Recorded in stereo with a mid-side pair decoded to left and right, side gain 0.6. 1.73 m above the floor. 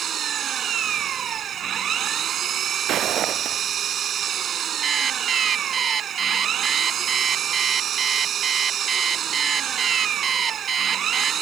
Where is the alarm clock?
35° right.